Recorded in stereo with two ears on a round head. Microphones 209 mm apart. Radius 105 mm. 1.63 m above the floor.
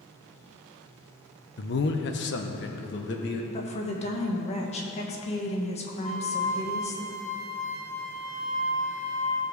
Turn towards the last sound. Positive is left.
turn(degrees=20)  # may be behind; listen again after turning